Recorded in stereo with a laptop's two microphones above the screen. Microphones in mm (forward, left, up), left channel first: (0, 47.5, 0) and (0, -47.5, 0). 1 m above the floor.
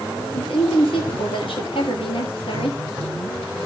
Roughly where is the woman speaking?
Left.